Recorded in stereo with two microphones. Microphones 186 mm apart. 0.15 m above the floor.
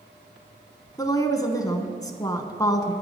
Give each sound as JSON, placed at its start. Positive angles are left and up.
{"t": 1.0, "sound": "a woman speaking", "side_deg": 20, "distance_m": 1.1}